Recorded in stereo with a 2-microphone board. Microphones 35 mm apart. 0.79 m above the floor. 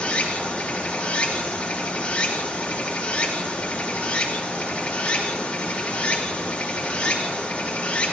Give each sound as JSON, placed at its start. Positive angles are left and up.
{"t": 0.0, "sound": "running water", "side_deg": 35, "distance_m": 2.5}